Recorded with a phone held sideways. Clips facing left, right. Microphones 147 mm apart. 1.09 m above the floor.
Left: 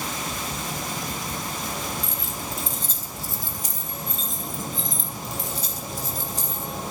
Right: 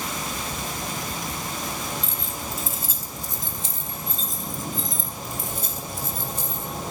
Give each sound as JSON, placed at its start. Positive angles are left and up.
{"t": 2.0, "sound": "keys jangling", "side_deg": 10, "distance_m": 3.5}